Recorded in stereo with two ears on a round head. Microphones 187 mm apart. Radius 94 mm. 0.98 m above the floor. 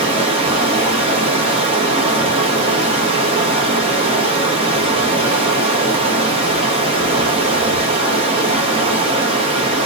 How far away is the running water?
About 0.8 m.